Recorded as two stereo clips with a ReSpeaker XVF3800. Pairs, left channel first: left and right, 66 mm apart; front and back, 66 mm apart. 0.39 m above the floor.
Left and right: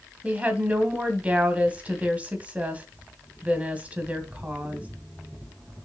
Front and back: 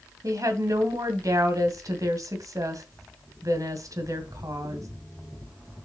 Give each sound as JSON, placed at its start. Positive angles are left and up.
{"t": 0.2, "sound": "a woman speaking", "azimuth_deg": -155, "distance_m": 2.0}